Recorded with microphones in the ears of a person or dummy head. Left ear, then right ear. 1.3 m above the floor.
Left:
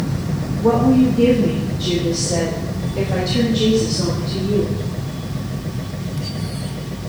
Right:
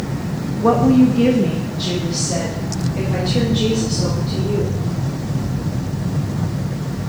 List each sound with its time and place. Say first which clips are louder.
0.6 s a woman speaking: right 1 dB; 70° right (ahead or behind), 0.7 m; by 4.8 s 5° left (ahead or behind), 2.5 m